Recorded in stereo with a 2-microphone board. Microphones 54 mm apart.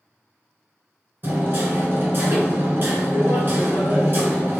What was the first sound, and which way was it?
Hammering, 45° right (ahead or behind).